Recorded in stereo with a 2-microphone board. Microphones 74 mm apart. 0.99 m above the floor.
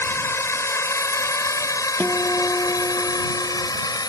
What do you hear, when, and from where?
0.0 s a drone: 35° left (ahead or behind); by 4.1 s 65° left (ahead or behind)
2.0 s a guitar: 25° left (ahead or behind)